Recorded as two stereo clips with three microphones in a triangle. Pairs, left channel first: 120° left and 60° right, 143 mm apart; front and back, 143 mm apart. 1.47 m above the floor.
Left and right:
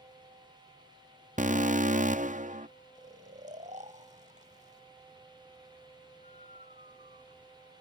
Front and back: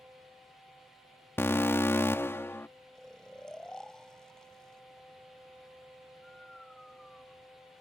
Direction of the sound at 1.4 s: 75° right.